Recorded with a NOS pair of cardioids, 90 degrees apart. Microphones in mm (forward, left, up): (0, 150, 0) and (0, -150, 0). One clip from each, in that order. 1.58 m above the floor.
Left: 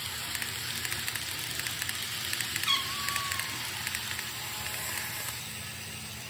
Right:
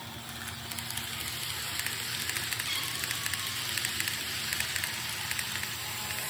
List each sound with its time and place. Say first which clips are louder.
2.7 s a cat meowing: left 4 dB; 60° left, 2.5 m; by 3.8 s 80° left, 3 m